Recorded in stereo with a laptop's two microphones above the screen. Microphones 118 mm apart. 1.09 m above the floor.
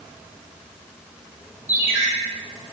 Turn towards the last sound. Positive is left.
turn(degrees=-15)  # may be behind; listen again after turning